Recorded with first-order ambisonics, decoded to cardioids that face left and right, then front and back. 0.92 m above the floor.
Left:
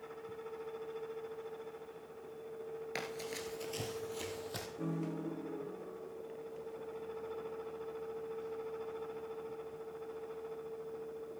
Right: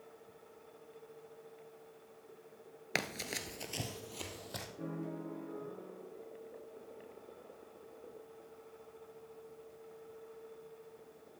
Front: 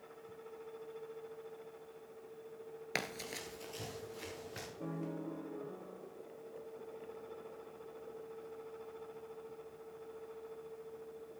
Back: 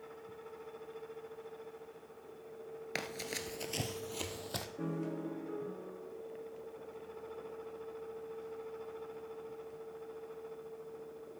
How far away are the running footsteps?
About 1.0 m.